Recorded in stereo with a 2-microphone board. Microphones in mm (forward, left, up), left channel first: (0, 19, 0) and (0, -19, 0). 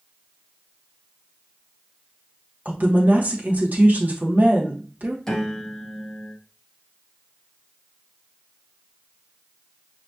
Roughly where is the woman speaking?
Right.